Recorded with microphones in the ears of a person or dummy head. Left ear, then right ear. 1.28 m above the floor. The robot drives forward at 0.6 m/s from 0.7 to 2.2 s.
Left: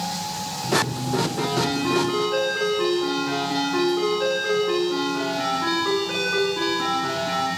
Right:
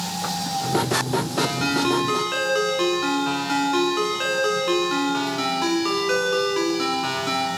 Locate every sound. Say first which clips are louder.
1.4 s a ringtone: right 1 dB; 80° right, 6 m; by 7.5 s 75° right (ahead or behind), 6.5 m